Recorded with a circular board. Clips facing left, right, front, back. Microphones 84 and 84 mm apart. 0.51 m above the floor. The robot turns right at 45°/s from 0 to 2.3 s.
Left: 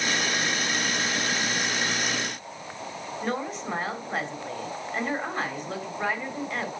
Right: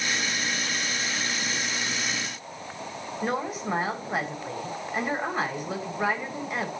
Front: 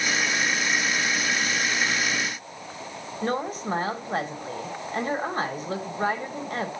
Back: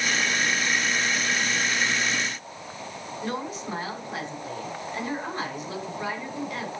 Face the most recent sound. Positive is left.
turn(degrees=-10)